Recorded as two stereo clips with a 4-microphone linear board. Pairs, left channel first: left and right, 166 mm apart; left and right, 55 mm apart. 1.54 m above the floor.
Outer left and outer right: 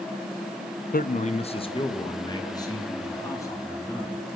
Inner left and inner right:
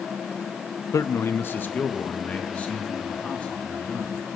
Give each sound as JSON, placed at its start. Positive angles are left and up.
{"t": 0.9, "sound": "a man speaking", "side_deg": 60, "distance_m": 0.7}